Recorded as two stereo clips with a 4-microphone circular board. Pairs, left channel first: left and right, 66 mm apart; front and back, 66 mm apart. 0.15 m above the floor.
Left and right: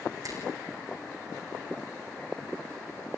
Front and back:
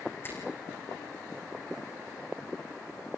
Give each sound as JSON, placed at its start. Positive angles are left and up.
{"t": 0.2, "sound": "a finger snap", "azimuth_deg": -60, "distance_m": 6.0}